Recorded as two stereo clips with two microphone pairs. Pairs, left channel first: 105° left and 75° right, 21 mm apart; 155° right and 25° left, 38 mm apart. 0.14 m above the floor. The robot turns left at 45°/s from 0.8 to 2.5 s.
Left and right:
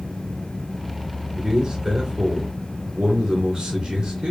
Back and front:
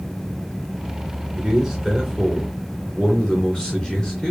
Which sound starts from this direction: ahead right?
A man speaking, at 1.4 s.